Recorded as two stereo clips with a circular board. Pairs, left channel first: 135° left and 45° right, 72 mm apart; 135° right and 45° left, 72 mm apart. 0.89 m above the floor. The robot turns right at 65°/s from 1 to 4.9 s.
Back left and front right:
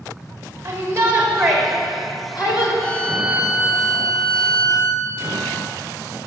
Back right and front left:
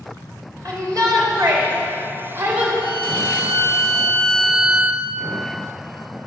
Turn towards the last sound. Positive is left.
turn(degrees=-20)